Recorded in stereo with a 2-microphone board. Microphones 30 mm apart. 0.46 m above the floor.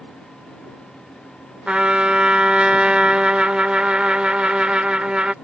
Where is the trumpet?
35° right (ahead or behind).